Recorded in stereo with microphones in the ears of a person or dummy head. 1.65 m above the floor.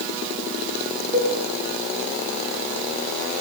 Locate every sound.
1.1 s a cowbell: 25° right (ahead or behind), 4 m